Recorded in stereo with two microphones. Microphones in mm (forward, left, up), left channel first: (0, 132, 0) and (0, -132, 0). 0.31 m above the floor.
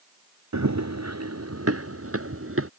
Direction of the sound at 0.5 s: 75° right (ahead or behind).